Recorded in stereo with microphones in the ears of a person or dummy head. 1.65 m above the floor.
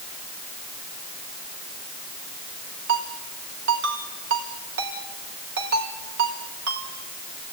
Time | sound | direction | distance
2.9 | a ringtone | 70° right (ahead or behind) | 4.5 m